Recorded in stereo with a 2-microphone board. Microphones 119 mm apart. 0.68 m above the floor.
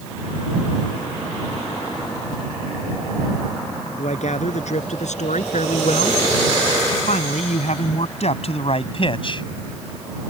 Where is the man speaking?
75° left (ahead or behind); by 9.5 s 45° left (ahead or behind).